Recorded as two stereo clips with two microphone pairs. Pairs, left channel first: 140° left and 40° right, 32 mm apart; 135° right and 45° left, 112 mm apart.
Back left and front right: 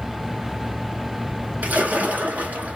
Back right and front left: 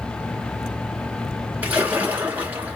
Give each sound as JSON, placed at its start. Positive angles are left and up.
{"t": 1.6, "sound": "a splash", "azimuth_deg": -25, "distance_m": 1.3}